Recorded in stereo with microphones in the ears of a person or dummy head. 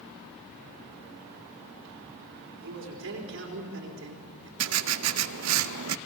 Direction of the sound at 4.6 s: 80° right.